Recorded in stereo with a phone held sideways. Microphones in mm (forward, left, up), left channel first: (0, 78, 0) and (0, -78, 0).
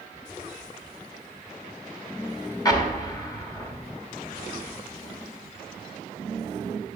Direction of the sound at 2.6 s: 25° left (ahead or behind).